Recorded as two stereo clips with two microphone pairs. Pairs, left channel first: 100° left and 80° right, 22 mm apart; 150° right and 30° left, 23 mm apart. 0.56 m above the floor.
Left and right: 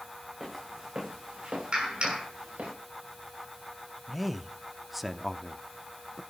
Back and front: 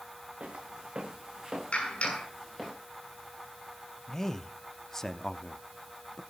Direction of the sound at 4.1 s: 150° right.